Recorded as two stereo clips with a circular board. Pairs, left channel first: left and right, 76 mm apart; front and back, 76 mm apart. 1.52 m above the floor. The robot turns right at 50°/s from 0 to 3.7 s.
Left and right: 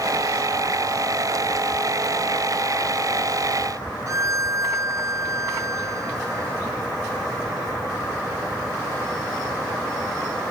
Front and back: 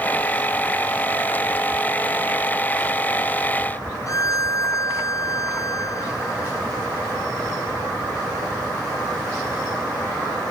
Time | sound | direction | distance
4.1 | a violin | 45° right | ?